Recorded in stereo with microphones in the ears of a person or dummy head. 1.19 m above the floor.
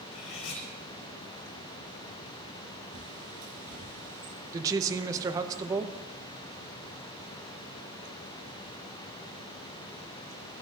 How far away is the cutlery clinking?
About 4 m.